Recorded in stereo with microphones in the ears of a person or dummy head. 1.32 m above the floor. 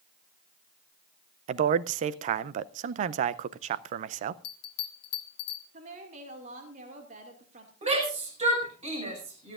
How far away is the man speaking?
About 0.5 m.